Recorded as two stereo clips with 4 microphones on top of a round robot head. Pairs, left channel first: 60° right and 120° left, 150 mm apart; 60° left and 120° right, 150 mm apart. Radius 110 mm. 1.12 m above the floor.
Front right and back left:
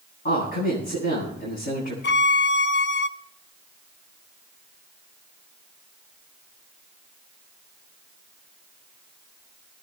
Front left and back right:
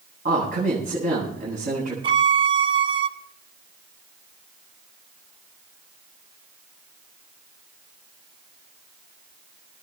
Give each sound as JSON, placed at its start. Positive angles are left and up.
{"t": 0.2, "sound": "a man speaking", "azimuth_deg": -85, "distance_m": 9.5}
{"t": 2.0, "sound": "a violin", "azimuth_deg": -65, "distance_m": 0.5}